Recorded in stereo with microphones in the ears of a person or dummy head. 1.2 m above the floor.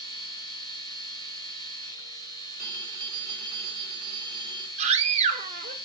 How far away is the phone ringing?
About 2 m.